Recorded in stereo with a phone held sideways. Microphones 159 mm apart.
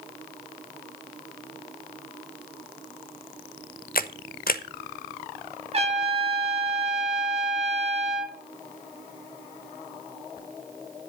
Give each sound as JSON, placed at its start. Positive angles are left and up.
{"t": 4.0, "sound": "a camera shutter", "side_deg": 70, "distance_m": 0.7}
{"t": 5.7, "sound": "a trumpet", "side_deg": -40, "distance_m": 2.5}